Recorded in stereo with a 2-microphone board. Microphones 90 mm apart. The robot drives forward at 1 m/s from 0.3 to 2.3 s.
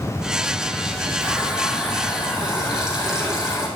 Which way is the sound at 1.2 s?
10° right (ahead or behind).